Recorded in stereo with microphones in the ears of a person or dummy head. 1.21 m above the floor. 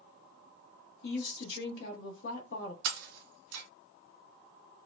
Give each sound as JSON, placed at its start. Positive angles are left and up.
{"t": 1.0, "sound": "a woman speaking", "side_deg": 65, "distance_m": 1.3}
{"t": 2.9, "sound": "breaking glass", "side_deg": -60, "distance_m": 1.6}